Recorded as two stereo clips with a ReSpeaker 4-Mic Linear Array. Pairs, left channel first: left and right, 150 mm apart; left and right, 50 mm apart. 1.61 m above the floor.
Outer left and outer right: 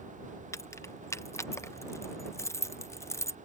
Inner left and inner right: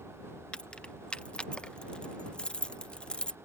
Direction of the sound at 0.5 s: 20° left (ahead or behind).